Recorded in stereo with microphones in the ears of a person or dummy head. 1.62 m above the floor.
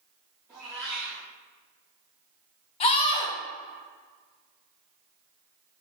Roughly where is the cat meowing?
Centre.